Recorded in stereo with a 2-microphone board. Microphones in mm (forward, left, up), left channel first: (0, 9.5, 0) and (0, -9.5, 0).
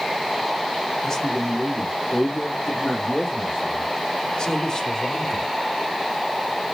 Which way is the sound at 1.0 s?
30° left (ahead or behind).